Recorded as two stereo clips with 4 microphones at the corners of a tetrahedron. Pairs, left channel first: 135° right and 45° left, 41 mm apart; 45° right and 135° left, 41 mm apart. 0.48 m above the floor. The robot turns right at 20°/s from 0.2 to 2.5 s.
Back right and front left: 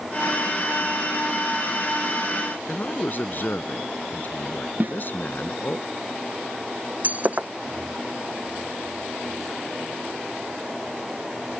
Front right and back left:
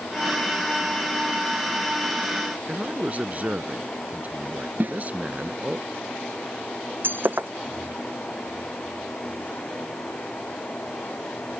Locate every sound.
2.7 s a man speaking: 175° right
4.8 s a snare drum: 90° left
7.0 s breaking glass: 95° left